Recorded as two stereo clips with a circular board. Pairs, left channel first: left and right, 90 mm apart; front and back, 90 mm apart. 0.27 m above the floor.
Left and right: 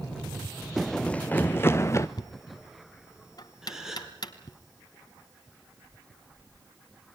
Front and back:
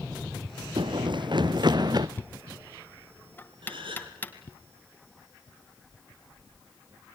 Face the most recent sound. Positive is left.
turn(degrees=-175)